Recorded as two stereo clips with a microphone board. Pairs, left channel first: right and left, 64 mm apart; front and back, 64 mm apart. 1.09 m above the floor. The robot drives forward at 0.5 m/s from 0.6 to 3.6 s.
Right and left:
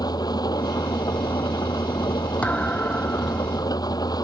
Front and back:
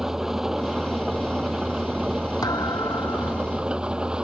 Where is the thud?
20° right.